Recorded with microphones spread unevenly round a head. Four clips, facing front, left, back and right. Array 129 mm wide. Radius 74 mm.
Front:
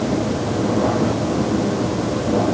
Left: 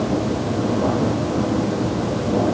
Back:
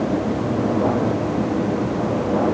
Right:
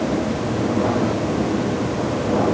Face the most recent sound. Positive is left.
No sound to turn to.